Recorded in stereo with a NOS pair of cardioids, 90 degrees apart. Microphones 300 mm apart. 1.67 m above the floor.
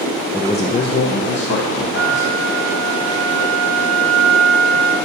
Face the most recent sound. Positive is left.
turn(degrees=-50)